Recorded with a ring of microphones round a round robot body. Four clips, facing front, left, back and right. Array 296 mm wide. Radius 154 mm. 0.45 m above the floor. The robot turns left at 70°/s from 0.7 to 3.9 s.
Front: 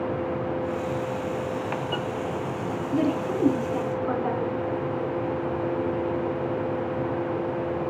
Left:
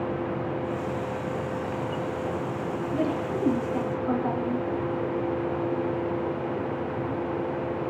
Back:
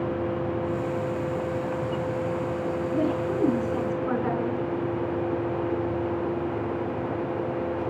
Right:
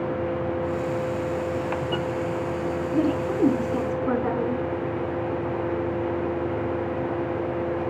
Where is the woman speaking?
35° right, 5.5 m; by 4.7 s 105° right, 5.5 m.